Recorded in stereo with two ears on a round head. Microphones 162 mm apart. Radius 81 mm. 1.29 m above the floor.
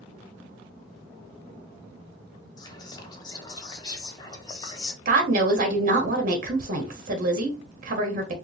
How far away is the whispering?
About 0.7 m.